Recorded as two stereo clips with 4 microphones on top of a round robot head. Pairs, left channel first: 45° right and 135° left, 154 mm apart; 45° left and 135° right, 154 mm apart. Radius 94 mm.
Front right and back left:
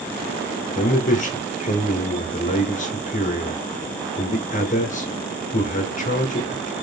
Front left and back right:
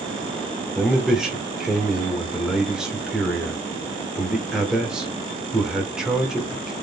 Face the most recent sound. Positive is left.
turn(degrees=-50)